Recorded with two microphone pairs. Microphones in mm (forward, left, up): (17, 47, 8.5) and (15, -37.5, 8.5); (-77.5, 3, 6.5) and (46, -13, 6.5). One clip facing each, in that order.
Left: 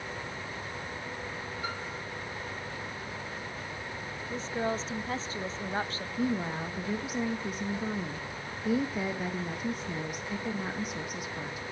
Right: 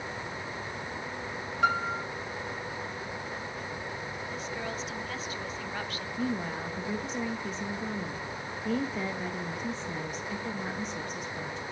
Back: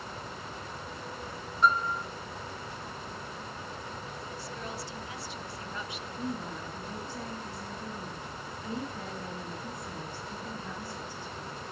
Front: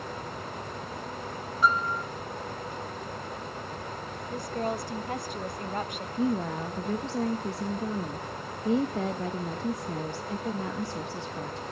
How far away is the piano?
About 2 m.